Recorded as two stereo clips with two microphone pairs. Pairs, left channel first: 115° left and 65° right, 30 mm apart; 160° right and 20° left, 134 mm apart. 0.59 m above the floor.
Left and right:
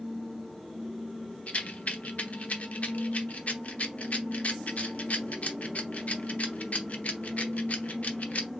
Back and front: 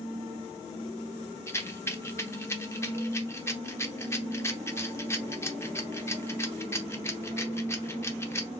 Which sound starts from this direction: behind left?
A rattle, at 1.5 s.